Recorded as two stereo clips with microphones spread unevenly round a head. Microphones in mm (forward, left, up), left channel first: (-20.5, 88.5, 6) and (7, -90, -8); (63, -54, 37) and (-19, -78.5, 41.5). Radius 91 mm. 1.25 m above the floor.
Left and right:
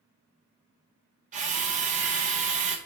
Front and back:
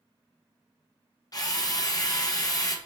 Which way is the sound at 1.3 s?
30° right.